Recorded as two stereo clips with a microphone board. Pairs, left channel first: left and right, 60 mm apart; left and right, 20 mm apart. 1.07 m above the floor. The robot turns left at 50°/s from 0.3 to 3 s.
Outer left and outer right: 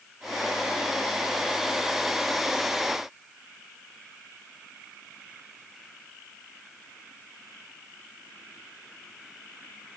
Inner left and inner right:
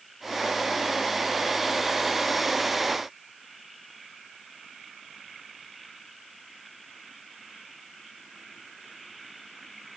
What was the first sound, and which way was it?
Only background noise.